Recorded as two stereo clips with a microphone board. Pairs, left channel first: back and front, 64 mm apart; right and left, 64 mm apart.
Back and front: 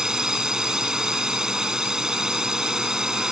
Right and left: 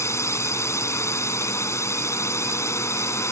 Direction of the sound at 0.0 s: 75° right.